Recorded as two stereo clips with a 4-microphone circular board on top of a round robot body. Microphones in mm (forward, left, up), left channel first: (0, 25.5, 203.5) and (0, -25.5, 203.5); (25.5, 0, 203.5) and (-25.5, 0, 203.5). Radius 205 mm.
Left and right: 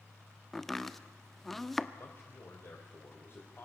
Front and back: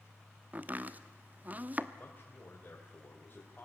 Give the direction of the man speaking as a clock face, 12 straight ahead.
10 o'clock.